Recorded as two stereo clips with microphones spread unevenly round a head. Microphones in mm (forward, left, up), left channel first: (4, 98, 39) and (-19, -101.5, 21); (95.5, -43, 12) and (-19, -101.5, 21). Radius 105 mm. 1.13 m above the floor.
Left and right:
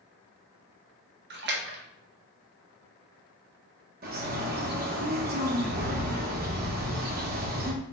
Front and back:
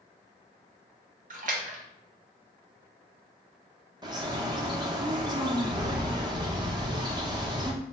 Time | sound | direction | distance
1.3 | a splash | 140° right | 0.7 m
4.0 | a bird | 100° right | 0.7 m